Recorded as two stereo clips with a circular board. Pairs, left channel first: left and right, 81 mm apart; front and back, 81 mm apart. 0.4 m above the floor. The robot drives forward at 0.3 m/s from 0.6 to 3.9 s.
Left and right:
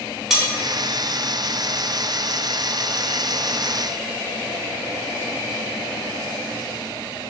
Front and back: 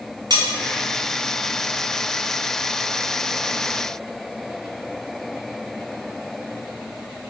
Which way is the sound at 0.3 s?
175° right.